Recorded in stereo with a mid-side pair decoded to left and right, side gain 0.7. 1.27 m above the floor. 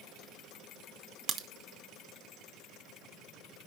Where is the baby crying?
No baby crying in this recording.